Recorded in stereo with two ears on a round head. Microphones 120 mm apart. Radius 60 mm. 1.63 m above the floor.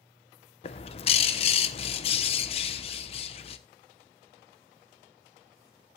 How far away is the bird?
About 0.8 m.